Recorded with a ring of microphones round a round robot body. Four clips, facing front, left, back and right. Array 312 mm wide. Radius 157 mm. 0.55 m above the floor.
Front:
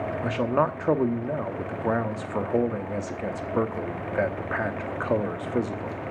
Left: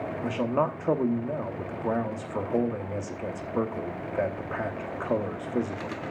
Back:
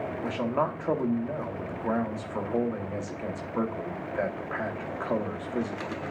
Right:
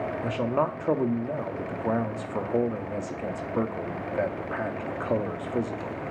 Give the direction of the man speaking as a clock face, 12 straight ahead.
12 o'clock.